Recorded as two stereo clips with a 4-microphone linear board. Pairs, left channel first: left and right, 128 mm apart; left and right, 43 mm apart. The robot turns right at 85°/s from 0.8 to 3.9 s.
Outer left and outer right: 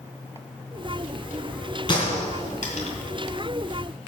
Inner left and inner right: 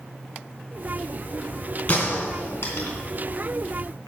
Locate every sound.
1.9 s a gunshot: 35° left (ahead or behind), 3 m; by 2.9 s 55° left (ahead or behind), 3 m